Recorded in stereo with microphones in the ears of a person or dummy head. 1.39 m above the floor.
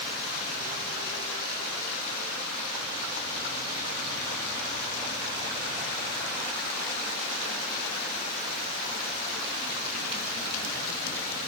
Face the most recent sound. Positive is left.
No sound to turn to.